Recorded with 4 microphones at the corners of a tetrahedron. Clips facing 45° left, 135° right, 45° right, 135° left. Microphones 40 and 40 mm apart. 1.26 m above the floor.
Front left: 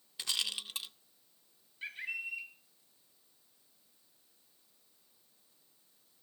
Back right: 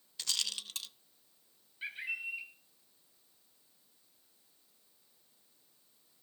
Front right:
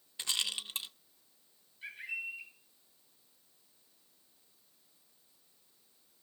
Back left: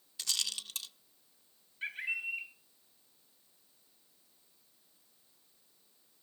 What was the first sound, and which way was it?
A rattle, 5° right.